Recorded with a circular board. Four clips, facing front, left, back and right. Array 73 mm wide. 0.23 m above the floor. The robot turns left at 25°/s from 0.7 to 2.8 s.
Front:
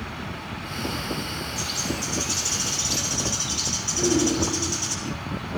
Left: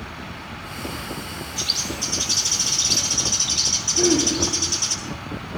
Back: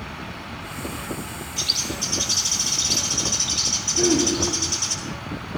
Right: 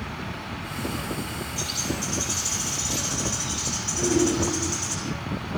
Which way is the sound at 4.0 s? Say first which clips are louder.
Left 2 dB, back 2 dB; 145° left.